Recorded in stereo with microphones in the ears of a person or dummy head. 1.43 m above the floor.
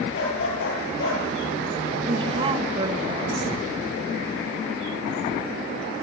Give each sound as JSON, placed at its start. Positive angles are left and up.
{"t": 0.1, "sound": "a dog barking", "side_deg": 80, "distance_m": 7.5}
{"t": 2.1, "sound": "a woman speaking", "side_deg": -35, "distance_m": 1.4}